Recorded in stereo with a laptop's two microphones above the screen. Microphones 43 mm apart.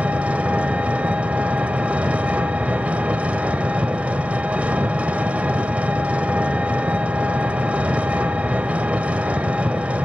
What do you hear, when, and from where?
0.0 s an engine running: 30° right (ahead or behind), 0.8 m